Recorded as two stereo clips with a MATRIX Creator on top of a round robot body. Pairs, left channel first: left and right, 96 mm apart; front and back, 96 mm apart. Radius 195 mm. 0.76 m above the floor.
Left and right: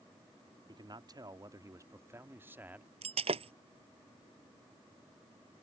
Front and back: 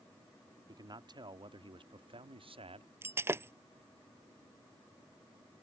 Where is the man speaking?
130° right; by 2.9 s 165° right.